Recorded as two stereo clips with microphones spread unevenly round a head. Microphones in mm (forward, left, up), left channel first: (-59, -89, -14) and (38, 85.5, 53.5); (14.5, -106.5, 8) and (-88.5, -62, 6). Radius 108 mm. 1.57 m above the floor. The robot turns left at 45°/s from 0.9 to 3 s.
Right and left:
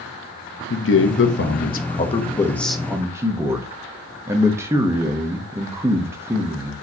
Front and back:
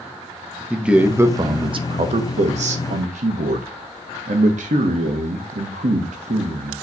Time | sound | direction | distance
0.7 | a man speaking | 120° right | 0.9 m